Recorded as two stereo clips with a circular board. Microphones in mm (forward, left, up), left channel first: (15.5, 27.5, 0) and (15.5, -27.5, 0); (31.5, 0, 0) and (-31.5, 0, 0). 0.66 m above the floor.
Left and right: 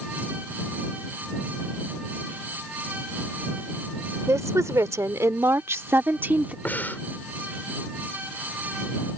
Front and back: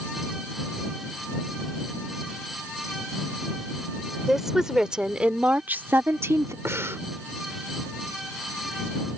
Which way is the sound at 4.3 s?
90° right.